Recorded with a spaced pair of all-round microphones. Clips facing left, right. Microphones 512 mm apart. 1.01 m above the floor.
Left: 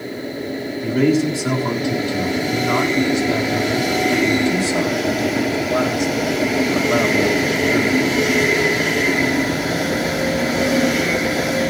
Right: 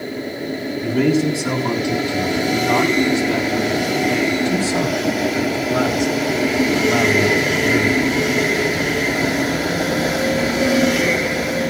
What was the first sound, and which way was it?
A man speaking, 10° right (ahead or behind).